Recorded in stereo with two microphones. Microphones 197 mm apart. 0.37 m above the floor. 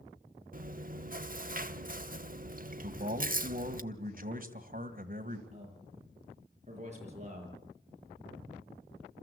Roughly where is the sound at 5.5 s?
Right.